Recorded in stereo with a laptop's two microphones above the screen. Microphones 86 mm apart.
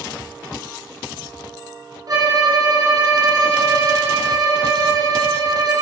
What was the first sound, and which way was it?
A violin, 45° right (ahead or behind).